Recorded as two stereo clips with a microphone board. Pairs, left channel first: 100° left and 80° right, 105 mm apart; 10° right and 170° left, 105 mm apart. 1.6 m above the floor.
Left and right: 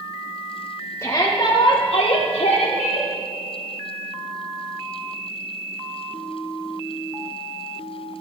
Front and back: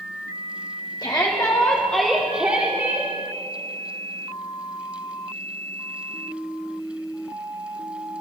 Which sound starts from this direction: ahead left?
A shout, at 1.0 s.